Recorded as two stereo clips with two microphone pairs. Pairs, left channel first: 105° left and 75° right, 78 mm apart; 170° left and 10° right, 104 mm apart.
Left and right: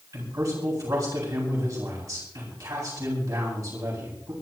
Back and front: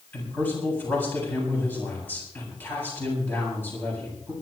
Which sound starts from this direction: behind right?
A man speaking, at 0.1 s.